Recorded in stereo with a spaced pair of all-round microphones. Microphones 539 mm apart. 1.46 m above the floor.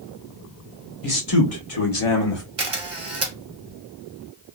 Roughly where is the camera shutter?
Right.